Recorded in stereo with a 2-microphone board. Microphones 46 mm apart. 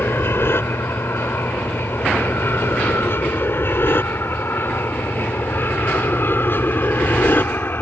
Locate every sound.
0.0 s an aircraft: 60° left (ahead or behind); by 7.8 s 50° left (ahead or behind)